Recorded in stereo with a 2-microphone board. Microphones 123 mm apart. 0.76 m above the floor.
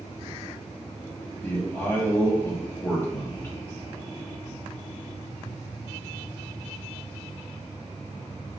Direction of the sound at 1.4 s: 15° left (ahead or behind).